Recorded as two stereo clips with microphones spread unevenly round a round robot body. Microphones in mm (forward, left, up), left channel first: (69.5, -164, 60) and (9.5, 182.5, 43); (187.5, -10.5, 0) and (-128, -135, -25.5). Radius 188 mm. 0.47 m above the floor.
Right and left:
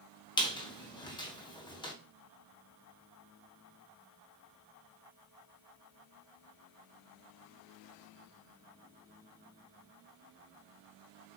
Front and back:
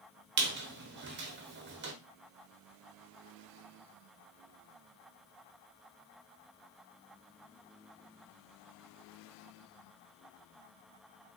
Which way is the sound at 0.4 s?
155° right.